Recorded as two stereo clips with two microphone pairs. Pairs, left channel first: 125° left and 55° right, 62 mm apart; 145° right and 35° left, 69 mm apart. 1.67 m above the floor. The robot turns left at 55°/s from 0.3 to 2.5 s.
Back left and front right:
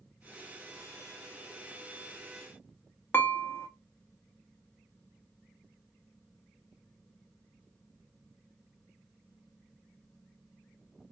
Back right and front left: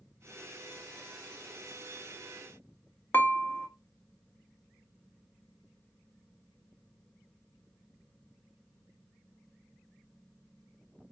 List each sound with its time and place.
3.1 s dishes clattering: 165° left, 0.9 m